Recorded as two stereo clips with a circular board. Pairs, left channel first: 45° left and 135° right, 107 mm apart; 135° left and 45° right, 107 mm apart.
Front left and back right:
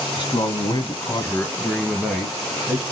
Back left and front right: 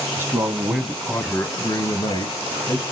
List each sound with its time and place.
0.1 s a man speaking: 15° left, 1.8 m; by 2.8 s 150° left, 2 m